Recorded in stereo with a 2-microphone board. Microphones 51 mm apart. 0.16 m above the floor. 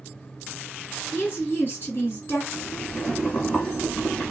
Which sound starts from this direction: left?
A woman speaking, at 1.1 s.